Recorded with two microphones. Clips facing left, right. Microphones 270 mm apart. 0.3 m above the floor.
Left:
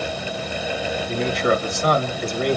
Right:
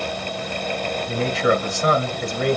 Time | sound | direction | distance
1.1 | a man speaking | 35° right (ahead or behind) | 1.7 m